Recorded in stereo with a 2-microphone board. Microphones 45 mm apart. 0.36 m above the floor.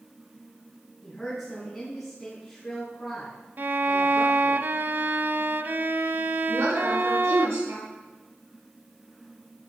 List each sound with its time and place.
1.0 s a woman speaking: 5° left (ahead or behind), 4 m
3.6 s a violin: 45° right (ahead or behind), 0.6 m
6.5 s a woman speaking: 75° right (ahead or behind), 5 m